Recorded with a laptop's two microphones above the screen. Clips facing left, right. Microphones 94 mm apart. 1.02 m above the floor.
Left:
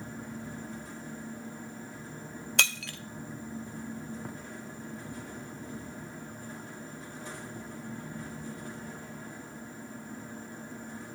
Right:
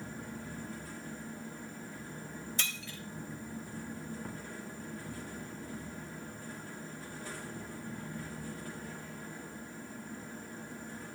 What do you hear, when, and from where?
0.0 s a fan: 20° left (ahead or behind), 1.8 m
2.6 s breaking glass: 65° left (ahead or behind), 0.6 m